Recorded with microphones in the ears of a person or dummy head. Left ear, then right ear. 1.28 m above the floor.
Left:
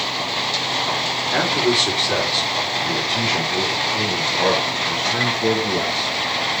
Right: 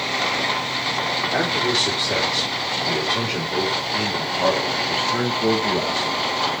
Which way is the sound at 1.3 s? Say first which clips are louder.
Left 4 dB; 15° left (ahead or behind).